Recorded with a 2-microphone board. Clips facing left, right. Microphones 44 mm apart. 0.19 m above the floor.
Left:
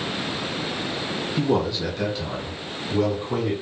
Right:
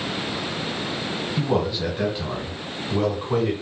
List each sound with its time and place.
1.4 s a man speaking: 5° right (ahead or behind), 1.3 m; by 3.5 s 35° right (ahead or behind), 1.6 m